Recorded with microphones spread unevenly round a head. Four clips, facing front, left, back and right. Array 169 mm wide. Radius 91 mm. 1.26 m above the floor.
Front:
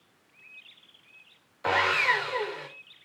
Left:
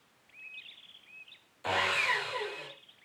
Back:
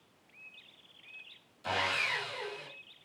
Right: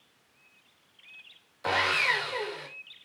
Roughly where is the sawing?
Ahead.